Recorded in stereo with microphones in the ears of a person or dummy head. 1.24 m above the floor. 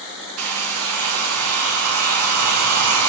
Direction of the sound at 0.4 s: 80° right.